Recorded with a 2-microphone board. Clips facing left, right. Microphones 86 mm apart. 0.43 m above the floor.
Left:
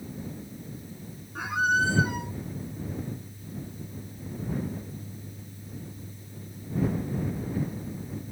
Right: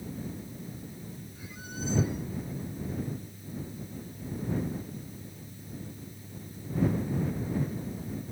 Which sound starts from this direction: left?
A squeak, at 1.4 s.